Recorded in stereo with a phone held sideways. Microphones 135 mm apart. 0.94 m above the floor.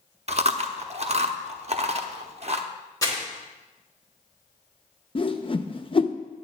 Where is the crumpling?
25° left (ahead or behind), 2.5 m.